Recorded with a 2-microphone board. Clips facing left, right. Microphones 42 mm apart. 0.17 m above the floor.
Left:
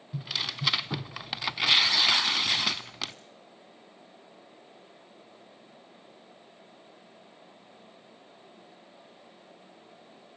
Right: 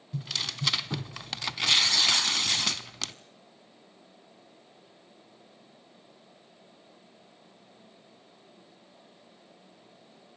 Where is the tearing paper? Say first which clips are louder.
Left 1 dB; 15° left (ahead or behind), 0.6 m.